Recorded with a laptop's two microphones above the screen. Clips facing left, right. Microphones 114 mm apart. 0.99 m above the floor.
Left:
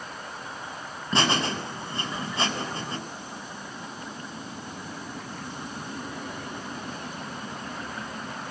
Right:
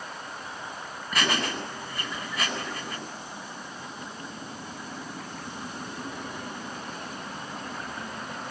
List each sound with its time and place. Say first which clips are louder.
1.1 s laughter: left 3 dB; 25° left (ahead or behind), 7 m